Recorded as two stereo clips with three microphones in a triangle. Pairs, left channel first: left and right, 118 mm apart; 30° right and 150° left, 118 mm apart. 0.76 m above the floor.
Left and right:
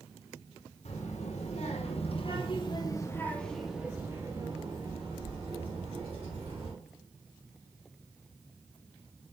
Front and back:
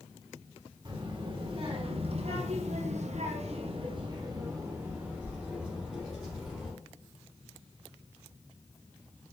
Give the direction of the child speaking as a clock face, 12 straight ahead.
9 o'clock.